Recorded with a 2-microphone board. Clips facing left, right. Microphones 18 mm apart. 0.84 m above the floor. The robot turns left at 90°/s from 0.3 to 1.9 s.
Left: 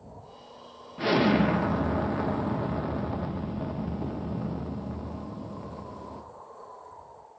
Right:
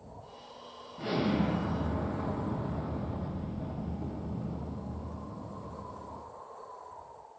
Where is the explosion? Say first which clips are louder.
Left 7 dB; 130° left, 1.1 m; by 6.2 s 45° left, 1.1 m.